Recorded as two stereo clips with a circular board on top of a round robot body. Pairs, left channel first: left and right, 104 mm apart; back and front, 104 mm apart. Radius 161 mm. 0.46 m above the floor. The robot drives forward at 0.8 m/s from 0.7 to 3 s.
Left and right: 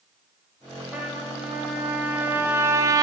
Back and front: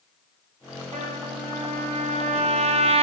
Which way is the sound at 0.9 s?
10° right.